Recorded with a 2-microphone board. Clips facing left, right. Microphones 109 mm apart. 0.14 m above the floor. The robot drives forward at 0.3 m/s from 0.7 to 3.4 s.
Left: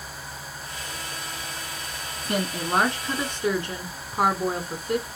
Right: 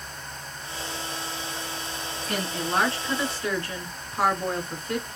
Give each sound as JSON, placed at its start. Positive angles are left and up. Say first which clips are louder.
{"t": 2.2, "sound": "a woman speaking", "louder": "left 3 dB", "side_deg": 20, "distance_m": 1.1}